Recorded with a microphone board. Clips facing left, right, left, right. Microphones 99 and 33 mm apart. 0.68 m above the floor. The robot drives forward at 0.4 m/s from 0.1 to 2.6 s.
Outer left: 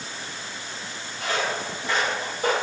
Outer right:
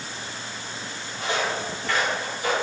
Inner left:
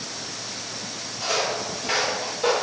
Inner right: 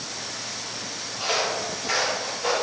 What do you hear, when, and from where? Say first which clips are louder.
1.2 s footsteps: outer right 1 dB, even; 30° right (ahead or behind), 0.9 m; by 2.5 s 50° left (ahead or behind), 1.1 m